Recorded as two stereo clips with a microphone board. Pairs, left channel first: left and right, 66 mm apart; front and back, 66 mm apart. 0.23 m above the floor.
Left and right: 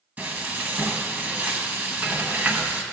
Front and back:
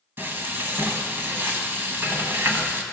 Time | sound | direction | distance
0.2 | frying | 140° right | 0.9 m